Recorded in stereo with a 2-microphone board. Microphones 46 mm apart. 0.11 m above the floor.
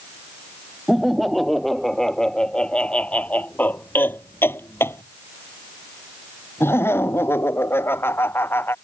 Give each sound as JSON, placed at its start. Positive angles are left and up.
{"t": 0.9, "sound": "laughter", "side_deg": -5}